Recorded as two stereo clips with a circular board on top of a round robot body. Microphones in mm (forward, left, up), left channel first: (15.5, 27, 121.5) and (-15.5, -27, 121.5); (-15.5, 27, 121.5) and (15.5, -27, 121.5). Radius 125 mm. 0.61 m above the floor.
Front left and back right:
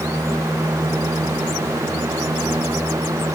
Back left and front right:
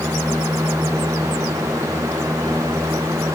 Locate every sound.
Only background noise.